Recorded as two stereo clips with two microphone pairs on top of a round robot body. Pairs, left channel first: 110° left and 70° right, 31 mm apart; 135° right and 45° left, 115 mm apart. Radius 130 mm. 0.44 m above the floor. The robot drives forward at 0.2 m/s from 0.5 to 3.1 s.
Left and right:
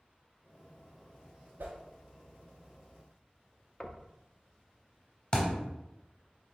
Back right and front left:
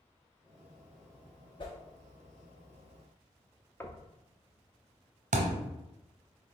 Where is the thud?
45° left, 0.7 m.